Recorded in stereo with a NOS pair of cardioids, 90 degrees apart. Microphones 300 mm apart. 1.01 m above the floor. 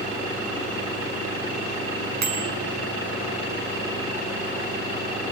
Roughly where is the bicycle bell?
Ahead right.